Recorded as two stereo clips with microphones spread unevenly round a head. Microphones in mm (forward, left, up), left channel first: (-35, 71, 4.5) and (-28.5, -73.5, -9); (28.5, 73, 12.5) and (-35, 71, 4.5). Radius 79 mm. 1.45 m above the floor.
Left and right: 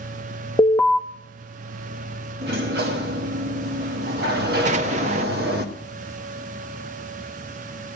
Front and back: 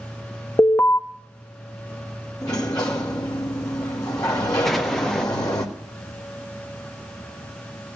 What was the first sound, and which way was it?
An alarm, 20° left.